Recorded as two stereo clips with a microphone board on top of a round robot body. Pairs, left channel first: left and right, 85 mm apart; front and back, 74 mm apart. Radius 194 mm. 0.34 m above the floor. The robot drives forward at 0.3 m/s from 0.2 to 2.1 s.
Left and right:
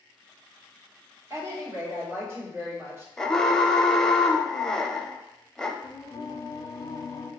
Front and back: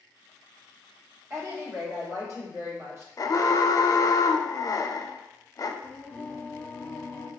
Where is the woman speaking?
135° right, 1.5 m; by 3.1 s 145° right, 1.7 m.